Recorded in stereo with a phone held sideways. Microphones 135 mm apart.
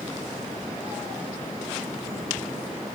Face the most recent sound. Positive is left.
No sound to turn to.